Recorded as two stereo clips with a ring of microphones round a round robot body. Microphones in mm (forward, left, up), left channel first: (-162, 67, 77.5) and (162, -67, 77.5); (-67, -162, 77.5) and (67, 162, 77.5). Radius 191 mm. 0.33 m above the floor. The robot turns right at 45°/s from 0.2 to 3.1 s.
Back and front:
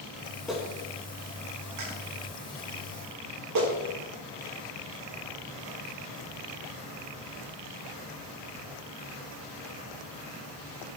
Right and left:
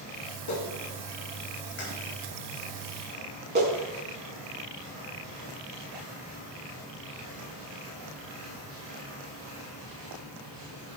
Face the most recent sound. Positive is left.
turn(degrees=5)